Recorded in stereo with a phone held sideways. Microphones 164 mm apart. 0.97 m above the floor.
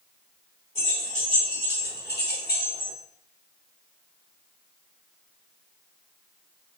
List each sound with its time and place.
0.8 s keys jangling: 40° left (ahead or behind), 2 m; by 2.9 s 55° left (ahead or behind), 1.4 m